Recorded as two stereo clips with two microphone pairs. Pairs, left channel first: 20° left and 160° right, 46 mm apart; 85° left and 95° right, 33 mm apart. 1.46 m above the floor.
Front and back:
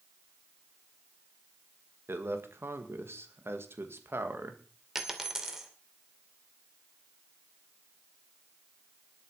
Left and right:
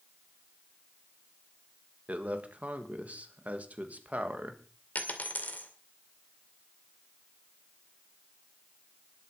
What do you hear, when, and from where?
2.1 s a man speaking: 135° right, 2 m
5.0 s a dropped coin: 120° left, 2 m